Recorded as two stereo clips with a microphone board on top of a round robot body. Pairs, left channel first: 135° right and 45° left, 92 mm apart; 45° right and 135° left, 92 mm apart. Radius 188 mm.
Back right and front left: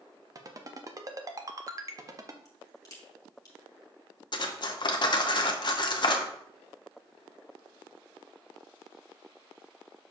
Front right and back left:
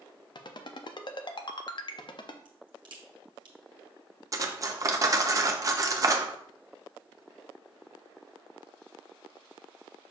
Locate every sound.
0.3 s a ringtone: 10° right, 0.7 m
2.5 s a crack: 175° left, 1.4 m
4.3 s cutlery clinking: 170° right, 0.8 m